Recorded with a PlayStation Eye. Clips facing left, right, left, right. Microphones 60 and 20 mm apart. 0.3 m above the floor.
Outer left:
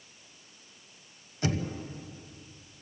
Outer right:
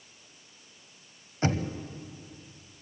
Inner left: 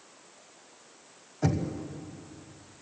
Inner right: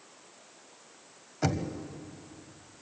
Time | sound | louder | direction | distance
1.4 | knocking | outer right 2 dB, inner left 1 dB | 40° right (ahead or behind) | 1.3 m